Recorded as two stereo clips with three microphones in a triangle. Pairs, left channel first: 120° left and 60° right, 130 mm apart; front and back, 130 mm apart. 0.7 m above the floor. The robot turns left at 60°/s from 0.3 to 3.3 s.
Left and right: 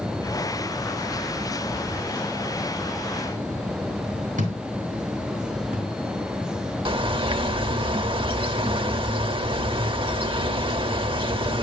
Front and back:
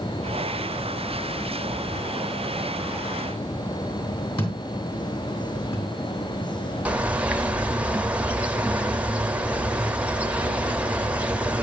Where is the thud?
55° right, 3 m.